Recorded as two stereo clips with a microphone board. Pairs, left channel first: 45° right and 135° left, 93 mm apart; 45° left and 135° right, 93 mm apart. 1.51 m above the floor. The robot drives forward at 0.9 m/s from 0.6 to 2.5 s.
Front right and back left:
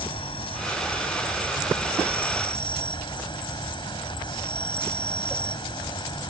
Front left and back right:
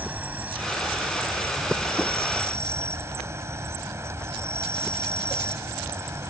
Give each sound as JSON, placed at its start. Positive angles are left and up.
{"t": 0.0, "sound": "an insect", "azimuth_deg": -65}